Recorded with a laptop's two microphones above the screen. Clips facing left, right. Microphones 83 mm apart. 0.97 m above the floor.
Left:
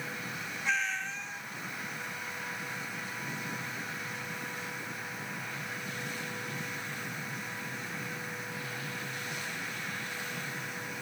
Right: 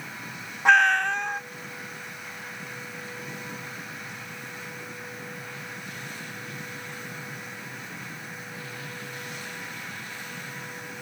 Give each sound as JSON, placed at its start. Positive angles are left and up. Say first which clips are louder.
{"t": 0.7, "sound": "a cat meowing", "louder": "right 15 dB", "side_deg": -65, "distance_m": 0.6}